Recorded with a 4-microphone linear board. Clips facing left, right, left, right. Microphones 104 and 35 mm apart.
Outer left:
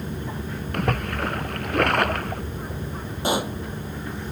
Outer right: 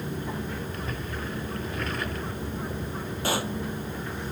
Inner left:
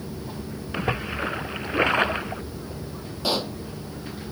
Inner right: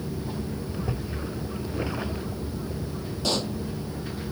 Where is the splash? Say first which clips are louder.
Outer left 8 dB, inner left 5 dB; 75° left (ahead or behind).